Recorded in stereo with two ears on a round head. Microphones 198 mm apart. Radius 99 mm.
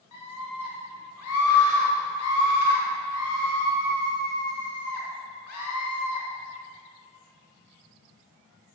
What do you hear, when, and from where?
0.1 s a scream: 80° left, 4.5 m